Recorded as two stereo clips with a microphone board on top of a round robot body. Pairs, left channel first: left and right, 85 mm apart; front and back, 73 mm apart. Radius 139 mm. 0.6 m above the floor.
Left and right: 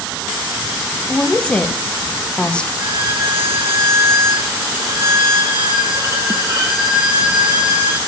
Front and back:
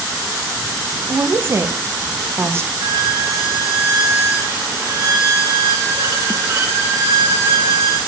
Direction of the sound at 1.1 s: 160° left.